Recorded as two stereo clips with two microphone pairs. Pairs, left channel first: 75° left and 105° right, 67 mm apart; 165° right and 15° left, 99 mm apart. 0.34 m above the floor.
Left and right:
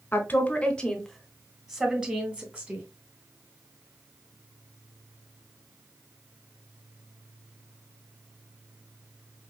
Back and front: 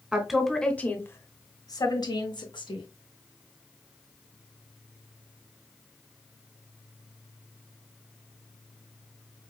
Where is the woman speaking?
85° left, 1.0 m; by 2.9 s 170° right, 1.8 m.